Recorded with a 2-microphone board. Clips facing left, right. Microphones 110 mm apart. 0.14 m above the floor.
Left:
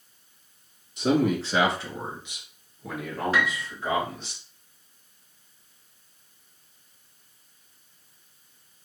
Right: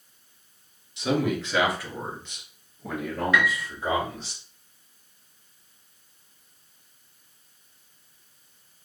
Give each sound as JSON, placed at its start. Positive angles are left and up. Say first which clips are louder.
{"t": 1.0, "sound": "a man speaking", "louder": "left 3 dB", "side_deg": 45, "distance_m": 1.8}
{"t": 3.3, "sound": "a piano", "louder": "right 3 dB", "side_deg": 35, "distance_m": 0.9}